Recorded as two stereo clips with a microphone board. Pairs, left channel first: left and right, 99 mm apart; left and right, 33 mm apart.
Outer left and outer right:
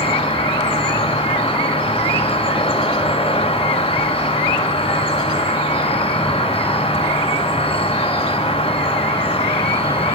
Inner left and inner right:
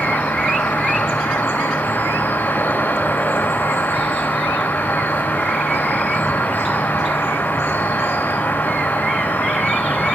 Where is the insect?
80° left, 4 m.